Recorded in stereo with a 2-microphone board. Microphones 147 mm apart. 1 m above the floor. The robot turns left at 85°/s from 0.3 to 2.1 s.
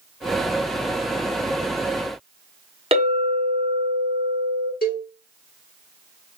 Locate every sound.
2.9 s a clink: 40° right (ahead or behind), 1.1 m
4.8 s a cowbell: 85° left, 2.0 m